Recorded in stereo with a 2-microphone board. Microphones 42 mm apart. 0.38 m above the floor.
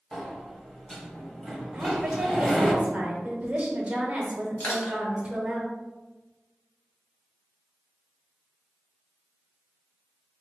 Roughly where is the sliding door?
Centre.